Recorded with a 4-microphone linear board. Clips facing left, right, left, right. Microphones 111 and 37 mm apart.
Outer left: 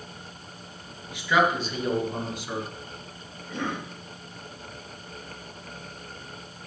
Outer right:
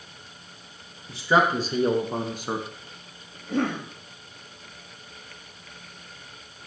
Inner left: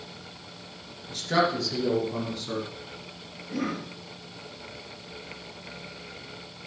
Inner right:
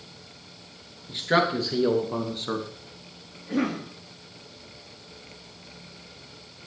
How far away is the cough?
About 3.5 m.